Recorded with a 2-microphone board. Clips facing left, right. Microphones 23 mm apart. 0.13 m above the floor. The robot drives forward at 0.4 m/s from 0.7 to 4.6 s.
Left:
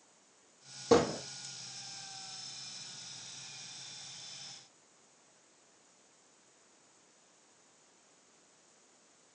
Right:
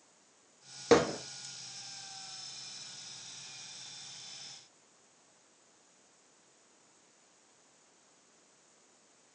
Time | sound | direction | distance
0.9 | hammering | 45° right (ahead or behind) | 1.1 m